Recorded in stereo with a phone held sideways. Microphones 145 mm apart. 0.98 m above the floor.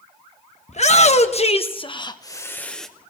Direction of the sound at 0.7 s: 55° left (ahead or behind).